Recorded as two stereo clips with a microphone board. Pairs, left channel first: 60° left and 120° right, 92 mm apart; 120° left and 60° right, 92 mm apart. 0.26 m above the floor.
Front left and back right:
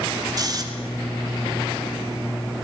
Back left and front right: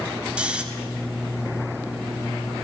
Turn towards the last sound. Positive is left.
turn(degrees=-135)